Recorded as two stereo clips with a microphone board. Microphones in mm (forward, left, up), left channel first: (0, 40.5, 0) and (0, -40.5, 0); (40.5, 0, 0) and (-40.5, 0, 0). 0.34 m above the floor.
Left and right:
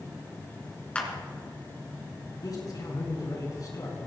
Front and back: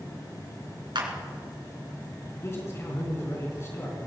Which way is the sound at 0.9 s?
165° left.